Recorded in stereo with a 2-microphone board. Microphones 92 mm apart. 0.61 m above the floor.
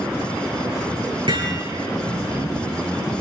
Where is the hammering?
70° right (ahead or behind), 10 m.